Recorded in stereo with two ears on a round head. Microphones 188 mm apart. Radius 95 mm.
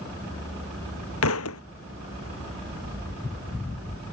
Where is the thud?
80° left.